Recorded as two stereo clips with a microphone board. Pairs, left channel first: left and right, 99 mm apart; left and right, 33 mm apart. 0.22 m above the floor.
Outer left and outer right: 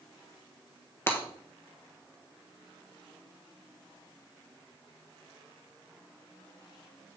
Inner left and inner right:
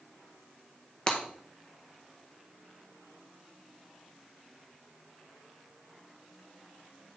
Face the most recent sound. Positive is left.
turn(degrees=25)  # may be behind; listen again after turning